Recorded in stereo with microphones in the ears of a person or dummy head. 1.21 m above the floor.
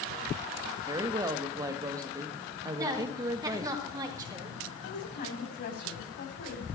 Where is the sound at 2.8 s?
20° right (ahead or behind), 4 m.